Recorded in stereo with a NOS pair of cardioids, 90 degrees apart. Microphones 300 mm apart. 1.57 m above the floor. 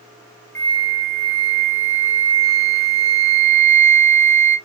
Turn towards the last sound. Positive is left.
turn(degrees=10)